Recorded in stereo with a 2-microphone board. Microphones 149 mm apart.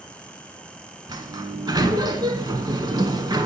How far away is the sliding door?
About 0.6 m.